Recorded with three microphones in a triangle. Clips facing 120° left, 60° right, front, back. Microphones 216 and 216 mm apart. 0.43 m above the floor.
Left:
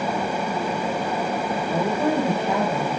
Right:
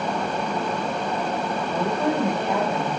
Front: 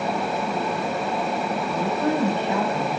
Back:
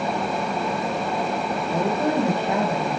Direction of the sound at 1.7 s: 175° right.